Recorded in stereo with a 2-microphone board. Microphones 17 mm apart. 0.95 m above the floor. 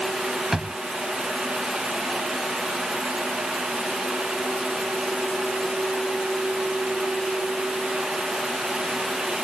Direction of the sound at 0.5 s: 20° right (ahead or behind).